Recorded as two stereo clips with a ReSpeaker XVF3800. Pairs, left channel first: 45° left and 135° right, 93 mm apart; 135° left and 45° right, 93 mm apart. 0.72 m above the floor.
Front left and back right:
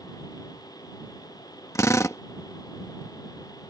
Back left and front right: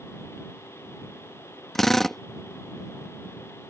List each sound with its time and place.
1.8 s a drill: 50° left